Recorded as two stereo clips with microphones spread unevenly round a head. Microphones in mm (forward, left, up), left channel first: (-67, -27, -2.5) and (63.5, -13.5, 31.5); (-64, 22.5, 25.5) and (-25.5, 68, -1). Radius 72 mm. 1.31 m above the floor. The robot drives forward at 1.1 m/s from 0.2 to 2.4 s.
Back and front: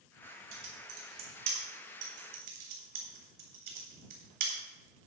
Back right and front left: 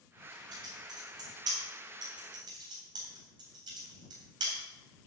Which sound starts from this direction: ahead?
Typing on a keyboard, at 0.5 s.